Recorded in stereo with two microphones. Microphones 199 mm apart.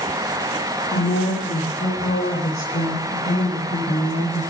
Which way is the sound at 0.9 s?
65° left (ahead or behind).